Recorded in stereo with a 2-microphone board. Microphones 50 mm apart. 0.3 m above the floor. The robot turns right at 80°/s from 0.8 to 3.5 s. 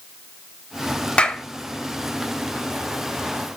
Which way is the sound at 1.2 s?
25° left (ahead or behind).